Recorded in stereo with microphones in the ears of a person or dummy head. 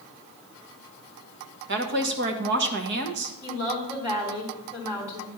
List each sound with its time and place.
1.7 s a woman speaking: 55° right (ahead or behind), 1.1 m
3.4 s a woman speaking: 15° right (ahead or behind), 3 m